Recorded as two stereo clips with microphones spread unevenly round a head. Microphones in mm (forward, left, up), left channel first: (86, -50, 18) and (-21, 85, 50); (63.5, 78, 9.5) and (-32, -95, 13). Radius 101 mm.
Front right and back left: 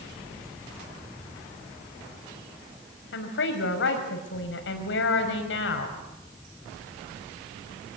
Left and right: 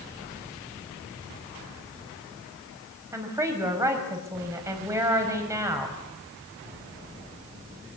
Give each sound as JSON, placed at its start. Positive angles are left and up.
{"t": 3.1, "sound": "a woman speaking", "azimuth_deg": -45, "distance_m": 5.5}